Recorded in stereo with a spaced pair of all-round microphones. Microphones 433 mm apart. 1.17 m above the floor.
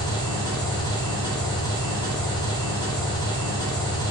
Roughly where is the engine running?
Centre.